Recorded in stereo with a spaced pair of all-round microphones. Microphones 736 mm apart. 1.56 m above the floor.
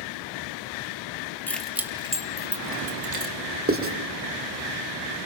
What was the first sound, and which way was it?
Keys jangling, 5° left (ahead or behind).